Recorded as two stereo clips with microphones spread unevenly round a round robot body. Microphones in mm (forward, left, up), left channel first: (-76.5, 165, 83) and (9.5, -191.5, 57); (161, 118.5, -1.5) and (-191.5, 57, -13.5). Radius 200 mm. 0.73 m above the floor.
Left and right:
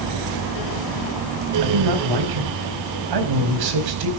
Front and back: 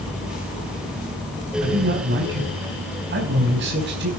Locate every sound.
1.6 s a man speaking: 105° right, 4 m